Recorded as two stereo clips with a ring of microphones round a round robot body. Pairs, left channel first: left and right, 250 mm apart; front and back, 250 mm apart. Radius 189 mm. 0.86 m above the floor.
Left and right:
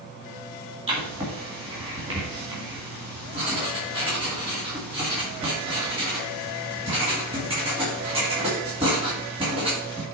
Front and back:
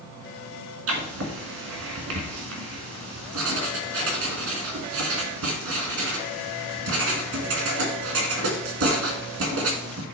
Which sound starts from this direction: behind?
Writing, at 0.9 s.